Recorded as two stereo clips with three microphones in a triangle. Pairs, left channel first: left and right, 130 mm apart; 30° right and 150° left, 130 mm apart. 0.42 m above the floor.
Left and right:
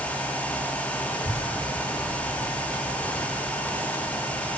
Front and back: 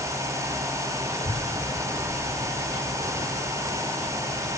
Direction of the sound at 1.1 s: 135° left.